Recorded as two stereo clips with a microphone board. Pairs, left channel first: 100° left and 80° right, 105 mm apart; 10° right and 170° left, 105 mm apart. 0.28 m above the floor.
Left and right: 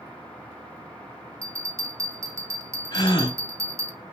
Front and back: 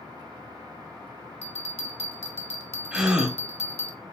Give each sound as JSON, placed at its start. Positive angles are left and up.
{"t": 1.4, "sound": "a bell", "azimuth_deg": -20, "distance_m": 0.7}
{"t": 2.9, "sound": "a gasp", "azimuth_deg": 90, "distance_m": 0.7}